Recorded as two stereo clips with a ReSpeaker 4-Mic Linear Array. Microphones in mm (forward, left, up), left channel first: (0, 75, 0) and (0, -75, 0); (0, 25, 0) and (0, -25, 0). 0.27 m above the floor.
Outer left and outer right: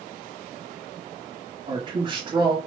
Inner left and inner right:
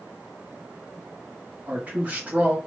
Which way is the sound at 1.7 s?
35° right (ahead or behind).